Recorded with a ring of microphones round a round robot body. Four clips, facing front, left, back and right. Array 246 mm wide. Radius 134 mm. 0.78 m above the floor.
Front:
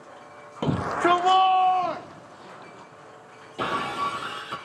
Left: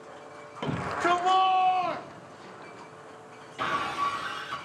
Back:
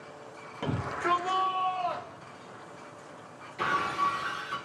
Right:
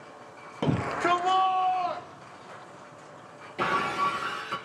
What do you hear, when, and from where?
0.6 s a shout: 40° right, 0.7 m; by 2.9 s 35° left, 1.7 m
3.6 s breaking glass: 30° right, 1.9 m